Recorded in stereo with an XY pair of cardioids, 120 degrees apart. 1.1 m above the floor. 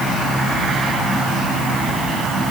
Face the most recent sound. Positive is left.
No sound to turn to.